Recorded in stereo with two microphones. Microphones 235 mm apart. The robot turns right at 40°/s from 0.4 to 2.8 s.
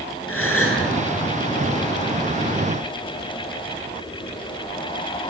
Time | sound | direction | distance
0.3 | a gasp | 80° left | 8 m